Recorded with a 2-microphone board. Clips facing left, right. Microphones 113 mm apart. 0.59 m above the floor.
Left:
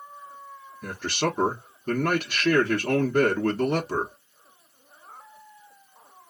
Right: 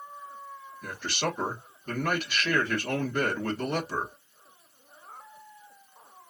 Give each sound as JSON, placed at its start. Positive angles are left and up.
{"t": 0.8, "sound": "a man speaking", "side_deg": 45, "distance_m": 1.0}